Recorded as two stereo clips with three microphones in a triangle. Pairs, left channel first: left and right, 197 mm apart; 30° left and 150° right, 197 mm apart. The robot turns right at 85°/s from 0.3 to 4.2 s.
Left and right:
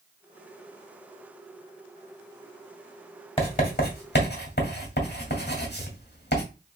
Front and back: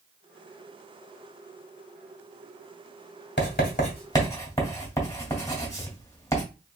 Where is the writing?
30° left, 2 m; by 6.4 s 100° left, 2 m.